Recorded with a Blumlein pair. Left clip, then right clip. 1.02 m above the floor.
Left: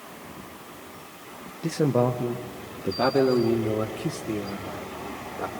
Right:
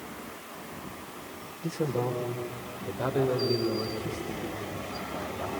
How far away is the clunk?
No clunk in this recording.